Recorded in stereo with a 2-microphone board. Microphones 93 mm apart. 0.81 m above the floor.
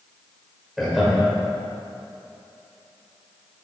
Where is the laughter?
5° right (ahead or behind), 3 m.